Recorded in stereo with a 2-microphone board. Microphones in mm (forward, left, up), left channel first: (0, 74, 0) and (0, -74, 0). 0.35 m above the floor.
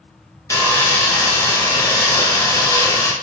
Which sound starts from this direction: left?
Sawing, at 0.5 s.